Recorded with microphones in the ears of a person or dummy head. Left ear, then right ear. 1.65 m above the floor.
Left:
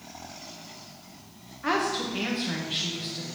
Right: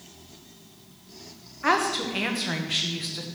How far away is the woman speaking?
About 1.1 m.